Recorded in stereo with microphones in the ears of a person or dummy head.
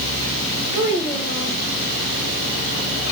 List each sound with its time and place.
0.7 s a child speaking: 10° right (ahead or behind), 3.5 m